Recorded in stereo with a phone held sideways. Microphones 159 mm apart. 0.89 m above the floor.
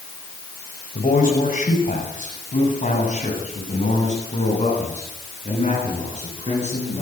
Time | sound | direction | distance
0.9 | a man speaking | 55° left (ahead or behind) | 5.5 m